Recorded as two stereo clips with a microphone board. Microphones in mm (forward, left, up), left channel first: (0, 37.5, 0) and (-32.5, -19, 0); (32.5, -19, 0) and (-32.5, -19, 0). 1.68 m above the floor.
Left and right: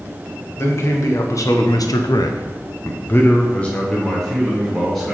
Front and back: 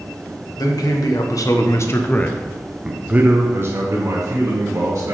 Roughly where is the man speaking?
Ahead.